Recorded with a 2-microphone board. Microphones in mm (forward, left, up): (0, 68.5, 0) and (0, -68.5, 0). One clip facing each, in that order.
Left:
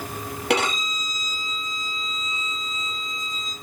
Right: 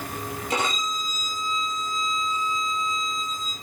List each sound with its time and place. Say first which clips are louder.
0.5 s a violin: left 5 dB; 75° left (ahead or behind), 5 m